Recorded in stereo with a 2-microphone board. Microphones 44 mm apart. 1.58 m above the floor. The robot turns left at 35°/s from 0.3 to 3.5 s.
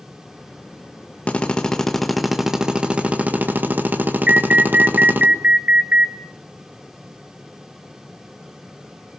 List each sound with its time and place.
1.3 s a drill: 30° left, 1.7 m; by 5.3 s 45° right, 1.7 m
4.3 s an alarm: 30° right (ahead or behind), 1.0 m